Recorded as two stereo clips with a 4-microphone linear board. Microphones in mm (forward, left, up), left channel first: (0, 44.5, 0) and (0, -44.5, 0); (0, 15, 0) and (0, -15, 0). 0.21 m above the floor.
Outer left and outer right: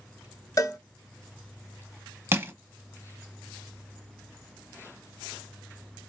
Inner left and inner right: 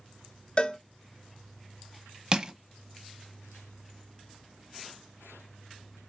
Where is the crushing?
25° right (ahead or behind), 0.6 m.